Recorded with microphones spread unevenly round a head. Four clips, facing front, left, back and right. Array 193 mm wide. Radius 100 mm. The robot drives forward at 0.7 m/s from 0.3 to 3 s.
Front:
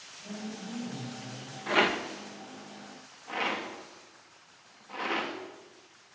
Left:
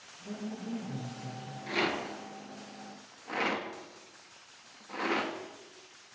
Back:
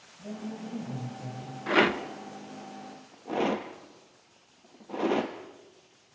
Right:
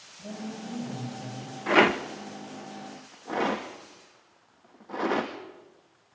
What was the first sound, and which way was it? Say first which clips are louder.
A woman speaking: right 2 dB, back 2 dB; 125° right.